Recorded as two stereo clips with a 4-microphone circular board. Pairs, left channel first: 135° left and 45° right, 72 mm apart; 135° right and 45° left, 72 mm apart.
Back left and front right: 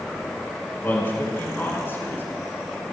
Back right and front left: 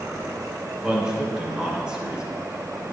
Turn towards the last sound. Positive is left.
turn(degrees=115)